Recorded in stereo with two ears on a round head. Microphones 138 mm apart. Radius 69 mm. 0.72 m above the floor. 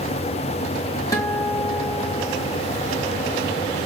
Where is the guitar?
20° left (ahead or behind), 1.4 m.